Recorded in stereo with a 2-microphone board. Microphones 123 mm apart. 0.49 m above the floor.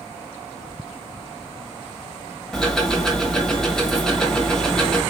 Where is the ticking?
5° left (ahead or behind), 1.4 m.